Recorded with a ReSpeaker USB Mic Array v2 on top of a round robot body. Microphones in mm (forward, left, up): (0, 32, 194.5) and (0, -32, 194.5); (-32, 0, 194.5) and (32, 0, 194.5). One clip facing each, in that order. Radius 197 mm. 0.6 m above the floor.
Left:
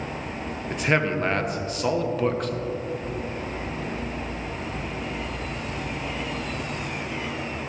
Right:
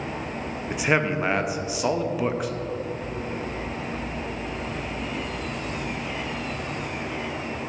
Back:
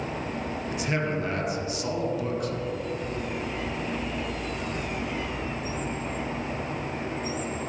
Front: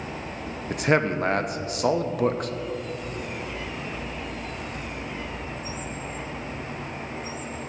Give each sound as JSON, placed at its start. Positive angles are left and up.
{"t": 0.7, "sound": "a man speaking", "azimuth_deg": -10, "distance_m": 0.8}